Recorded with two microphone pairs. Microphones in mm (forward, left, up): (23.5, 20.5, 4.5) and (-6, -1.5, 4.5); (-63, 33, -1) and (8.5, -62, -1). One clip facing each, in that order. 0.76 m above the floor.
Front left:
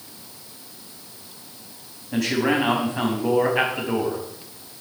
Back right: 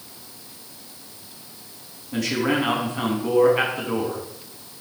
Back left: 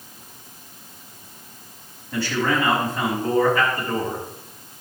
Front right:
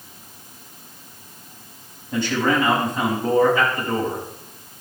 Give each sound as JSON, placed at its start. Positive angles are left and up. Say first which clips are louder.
{"t": 2.1, "sound": "a man speaking", "louder": "front left 1 dB, front right 2 dB", "azimuth_deg": 20, "distance_m": 6.0}